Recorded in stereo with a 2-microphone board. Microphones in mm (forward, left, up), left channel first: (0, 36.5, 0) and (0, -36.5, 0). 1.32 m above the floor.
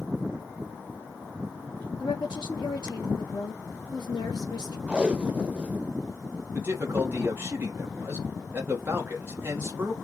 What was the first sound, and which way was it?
A woman speaking, 70° left (ahead or behind).